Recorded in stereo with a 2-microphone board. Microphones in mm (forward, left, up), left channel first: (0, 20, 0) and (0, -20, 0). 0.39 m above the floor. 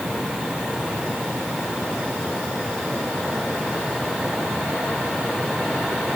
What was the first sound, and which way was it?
Only background noise.